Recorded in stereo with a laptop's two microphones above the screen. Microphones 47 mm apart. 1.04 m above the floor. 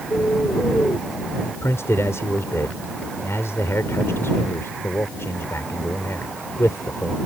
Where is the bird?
55° left (ahead or behind).